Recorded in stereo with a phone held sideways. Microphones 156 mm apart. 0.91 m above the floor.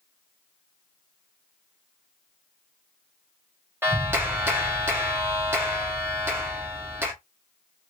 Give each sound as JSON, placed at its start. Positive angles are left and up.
{"t": 3.8, "sound": "a clap", "side_deg": -15, "distance_m": 1.2}